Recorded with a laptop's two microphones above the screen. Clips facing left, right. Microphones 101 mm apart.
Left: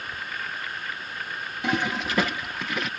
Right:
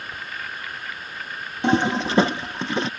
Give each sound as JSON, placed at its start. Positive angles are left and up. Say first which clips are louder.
{"t": 1.6, "sound": "a toilet flushing", "louder": "right 7 dB", "side_deg": -30}